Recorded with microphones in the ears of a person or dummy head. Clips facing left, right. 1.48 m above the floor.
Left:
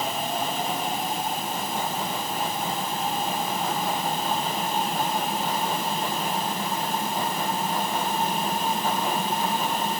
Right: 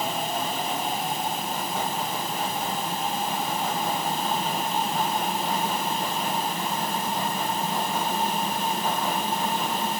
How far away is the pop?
No pop in this recording.